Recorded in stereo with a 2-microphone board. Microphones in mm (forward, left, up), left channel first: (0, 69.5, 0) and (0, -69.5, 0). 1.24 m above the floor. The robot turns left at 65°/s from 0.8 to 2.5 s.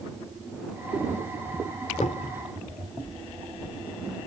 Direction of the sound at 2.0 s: 60° left (ahead or behind).